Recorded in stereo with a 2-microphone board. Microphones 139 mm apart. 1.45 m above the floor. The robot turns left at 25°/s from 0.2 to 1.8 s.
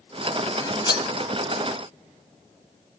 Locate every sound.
0.6 s cutlery clinking: 25° left (ahead or behind), 1.3 m; by 1.1 s 35° left (ahead or behind), 1.3 m